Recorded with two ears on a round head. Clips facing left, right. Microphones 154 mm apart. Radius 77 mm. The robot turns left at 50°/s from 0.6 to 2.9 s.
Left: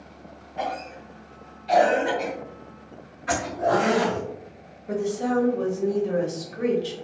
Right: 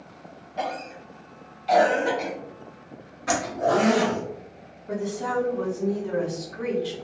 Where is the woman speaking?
30° left (ahead or behind), 1.3 m.